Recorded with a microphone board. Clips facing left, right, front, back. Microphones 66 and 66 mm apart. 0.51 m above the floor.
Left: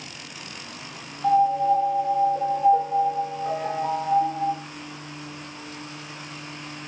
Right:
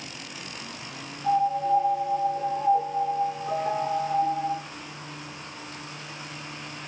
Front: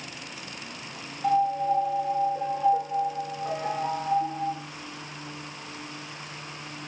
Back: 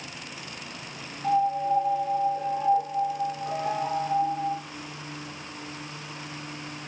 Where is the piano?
55° left, 8.5 m.